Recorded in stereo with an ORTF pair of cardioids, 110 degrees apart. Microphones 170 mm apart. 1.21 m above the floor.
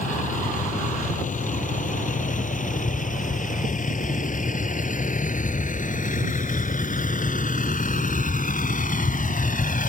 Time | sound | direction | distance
0.0 | a vehicle | 50° left | ?